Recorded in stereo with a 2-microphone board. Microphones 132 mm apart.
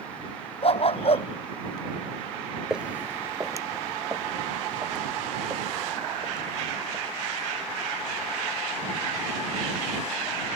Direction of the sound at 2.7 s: 5° right (ahead or behind).